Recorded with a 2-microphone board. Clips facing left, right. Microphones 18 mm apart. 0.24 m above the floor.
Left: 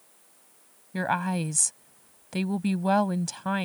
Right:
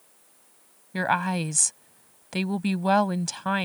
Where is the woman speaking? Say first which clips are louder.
Right 3 dB; 20° right (ahead or behind).